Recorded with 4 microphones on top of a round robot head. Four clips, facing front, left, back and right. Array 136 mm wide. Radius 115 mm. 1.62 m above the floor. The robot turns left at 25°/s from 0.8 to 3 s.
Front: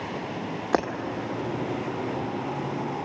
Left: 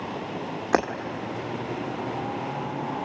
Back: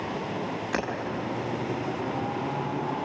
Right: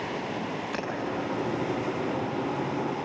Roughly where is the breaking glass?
Ahead left.